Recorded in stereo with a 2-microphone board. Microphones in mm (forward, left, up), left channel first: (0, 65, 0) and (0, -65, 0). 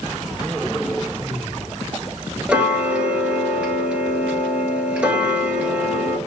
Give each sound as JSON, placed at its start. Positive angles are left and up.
{"t": 2.5, "sound": "ticking", "side_deg": -10, "distance_m": 1.3}